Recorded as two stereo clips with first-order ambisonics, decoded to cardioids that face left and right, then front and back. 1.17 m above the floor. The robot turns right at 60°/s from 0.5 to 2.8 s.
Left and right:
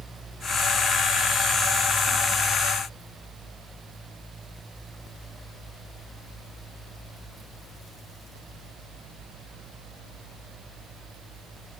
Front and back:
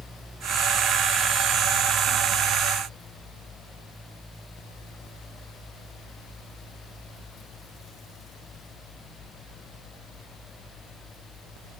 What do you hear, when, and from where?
Only background noise.